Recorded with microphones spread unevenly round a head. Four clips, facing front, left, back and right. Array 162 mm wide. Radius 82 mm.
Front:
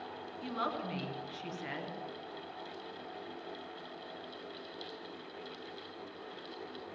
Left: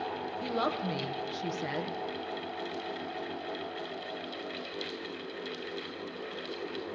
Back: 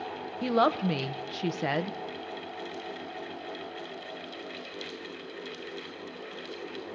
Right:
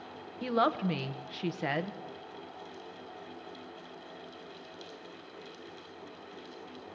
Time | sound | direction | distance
0.4 | a woman speaking | 165° right | 1.1 m